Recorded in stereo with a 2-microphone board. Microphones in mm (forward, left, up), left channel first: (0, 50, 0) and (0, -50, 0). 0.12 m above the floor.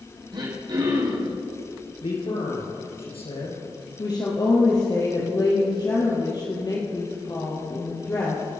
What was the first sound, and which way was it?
Throat clearing, 50° right (ahead or behind).